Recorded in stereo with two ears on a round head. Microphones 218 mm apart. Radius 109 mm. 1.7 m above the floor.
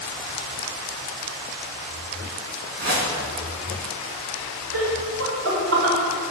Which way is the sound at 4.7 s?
60° right (ahead or behind).